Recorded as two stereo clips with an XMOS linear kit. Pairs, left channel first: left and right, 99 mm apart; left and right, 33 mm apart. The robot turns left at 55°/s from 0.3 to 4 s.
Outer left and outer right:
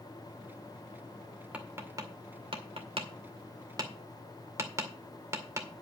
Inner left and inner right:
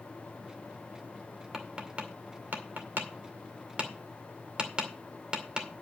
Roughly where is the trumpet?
No trumpet in this recording.